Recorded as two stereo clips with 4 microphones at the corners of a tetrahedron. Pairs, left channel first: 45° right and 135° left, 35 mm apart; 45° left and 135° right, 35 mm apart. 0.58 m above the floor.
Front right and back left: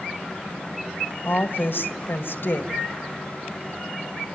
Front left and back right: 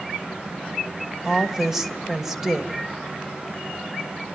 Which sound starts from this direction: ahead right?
A woman speaking, at 1.2 s.